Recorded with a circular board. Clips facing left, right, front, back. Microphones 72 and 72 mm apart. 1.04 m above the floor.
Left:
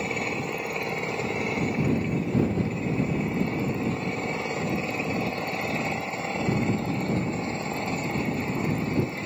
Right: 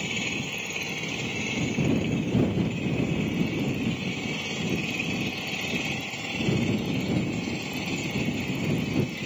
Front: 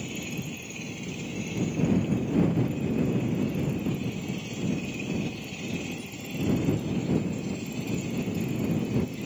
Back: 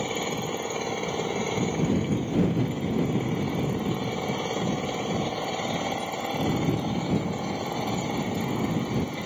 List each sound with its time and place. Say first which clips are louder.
0.0 s an engine running: left 3 dB, back 6 dB; 150° left